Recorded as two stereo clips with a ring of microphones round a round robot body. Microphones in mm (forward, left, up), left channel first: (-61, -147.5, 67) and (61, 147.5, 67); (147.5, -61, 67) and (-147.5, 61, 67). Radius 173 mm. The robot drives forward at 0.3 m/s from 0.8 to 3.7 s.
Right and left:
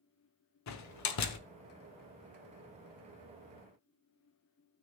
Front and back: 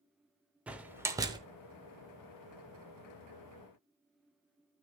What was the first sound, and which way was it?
A door slam, 115° right.